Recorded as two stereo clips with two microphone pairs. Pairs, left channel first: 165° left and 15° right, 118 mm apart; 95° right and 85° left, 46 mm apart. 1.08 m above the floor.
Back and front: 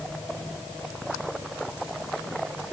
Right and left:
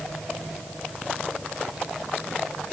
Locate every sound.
Only background noise.